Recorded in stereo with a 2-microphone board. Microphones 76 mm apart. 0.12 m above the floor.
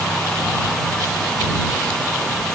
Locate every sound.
Only background noise.